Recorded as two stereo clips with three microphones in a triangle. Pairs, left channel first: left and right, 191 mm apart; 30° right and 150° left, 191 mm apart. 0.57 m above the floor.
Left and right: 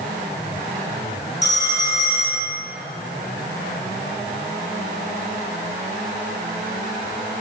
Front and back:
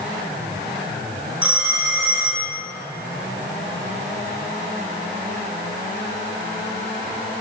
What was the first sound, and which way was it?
A phone ringing, 70° left.